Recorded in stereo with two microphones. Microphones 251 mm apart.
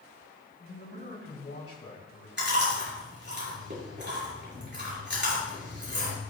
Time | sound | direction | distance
0.6 | a man speaking | 55° left (ahead or behind) | 3 m
2.4 | chewing | 45° right (ahead or behind) | 5 m